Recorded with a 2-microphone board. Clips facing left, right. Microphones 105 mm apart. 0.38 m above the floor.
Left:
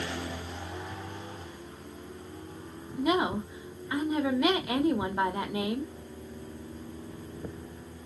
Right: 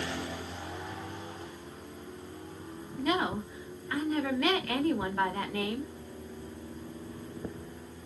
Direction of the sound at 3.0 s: 15° left (ahead or behind).